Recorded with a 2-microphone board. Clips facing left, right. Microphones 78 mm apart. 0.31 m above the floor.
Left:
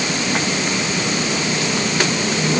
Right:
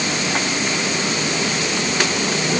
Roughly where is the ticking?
No ticking in this recording.